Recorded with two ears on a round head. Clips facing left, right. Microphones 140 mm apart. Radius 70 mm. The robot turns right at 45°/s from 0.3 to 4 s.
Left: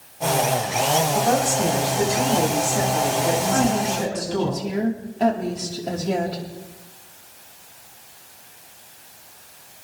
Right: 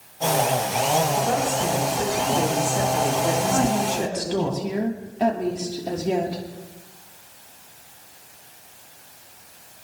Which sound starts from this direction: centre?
A woman speaking, at 3.5 s.